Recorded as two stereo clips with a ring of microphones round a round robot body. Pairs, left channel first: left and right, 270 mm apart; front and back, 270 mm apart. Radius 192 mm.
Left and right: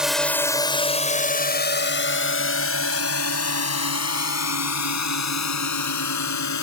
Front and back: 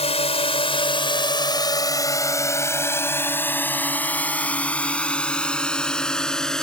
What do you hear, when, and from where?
0.0 s a drone: 5° right; by 6.6 s 90° left